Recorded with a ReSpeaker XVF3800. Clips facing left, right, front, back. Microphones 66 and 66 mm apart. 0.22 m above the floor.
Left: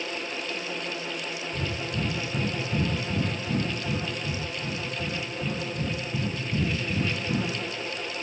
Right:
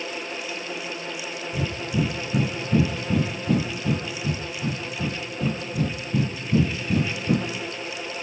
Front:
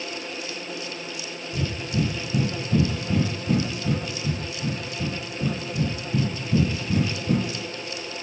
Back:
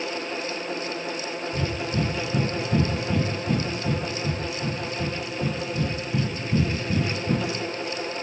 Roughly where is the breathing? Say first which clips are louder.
Right 7 dB, front 2 dB; right.